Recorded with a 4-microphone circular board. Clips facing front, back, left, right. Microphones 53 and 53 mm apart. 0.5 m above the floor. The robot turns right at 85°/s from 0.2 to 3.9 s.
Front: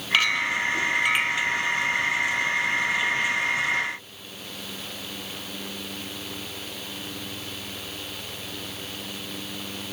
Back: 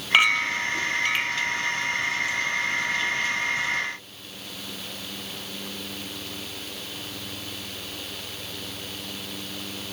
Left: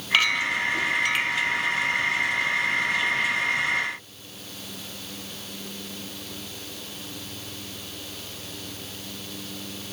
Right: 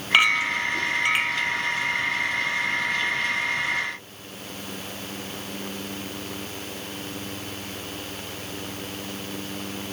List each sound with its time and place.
0.1 s a clink: 135° right, 0.7 m; by 1.5 s 30° right, 0.7 m